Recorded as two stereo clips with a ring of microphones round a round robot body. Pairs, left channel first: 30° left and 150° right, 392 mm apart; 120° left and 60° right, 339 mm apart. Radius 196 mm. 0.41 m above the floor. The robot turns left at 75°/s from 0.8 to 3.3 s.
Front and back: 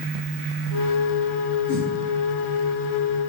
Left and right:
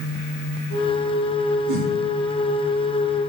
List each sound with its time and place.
1.7 s a whoosh: 30° right, 5 m; by 1.9 s 45° right, 5 m